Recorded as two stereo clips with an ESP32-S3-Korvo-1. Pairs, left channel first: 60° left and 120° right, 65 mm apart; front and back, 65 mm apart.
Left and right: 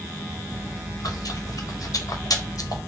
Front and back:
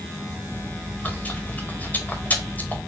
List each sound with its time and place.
0.5 s chewing: 60° left, 1.1 m